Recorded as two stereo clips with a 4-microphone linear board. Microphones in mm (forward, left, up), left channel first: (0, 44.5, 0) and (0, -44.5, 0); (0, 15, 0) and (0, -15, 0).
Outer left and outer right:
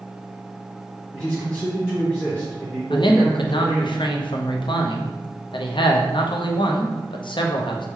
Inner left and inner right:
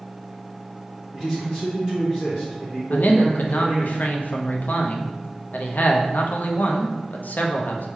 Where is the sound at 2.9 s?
65° left (ahead or behind), 0.6 m.